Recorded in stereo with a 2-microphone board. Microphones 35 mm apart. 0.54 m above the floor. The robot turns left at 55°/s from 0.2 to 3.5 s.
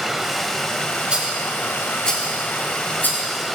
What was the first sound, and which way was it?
Running water, 175° right.